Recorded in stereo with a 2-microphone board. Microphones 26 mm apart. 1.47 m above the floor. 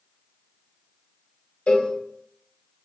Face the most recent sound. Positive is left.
turn(degrees=55)  # may be behind; listen again after turning